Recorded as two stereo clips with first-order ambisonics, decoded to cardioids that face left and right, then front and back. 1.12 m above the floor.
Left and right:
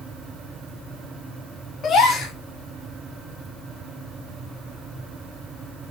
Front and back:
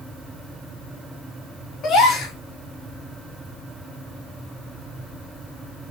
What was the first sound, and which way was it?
A gasp, 40° left.